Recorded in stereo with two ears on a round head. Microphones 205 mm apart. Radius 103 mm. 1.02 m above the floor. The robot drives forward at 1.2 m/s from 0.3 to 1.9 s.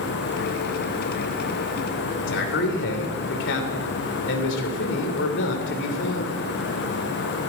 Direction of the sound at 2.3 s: 60° left (ahead or behind).